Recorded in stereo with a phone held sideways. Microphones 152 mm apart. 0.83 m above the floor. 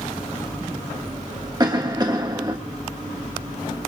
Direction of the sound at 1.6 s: 25° right (ahead or behind).